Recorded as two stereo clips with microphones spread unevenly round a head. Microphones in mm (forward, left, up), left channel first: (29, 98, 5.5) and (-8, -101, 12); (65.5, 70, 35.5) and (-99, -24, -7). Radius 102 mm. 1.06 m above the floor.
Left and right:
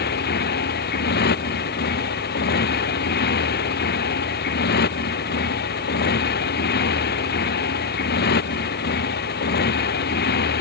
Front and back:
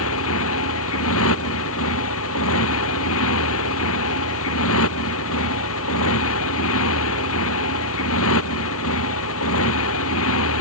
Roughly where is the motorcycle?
Ahead left.